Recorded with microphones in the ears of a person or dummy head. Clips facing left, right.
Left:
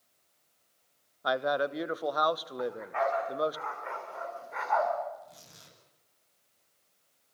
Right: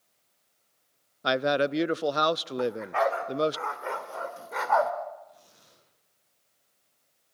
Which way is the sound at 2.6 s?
45° right (ahead or behind).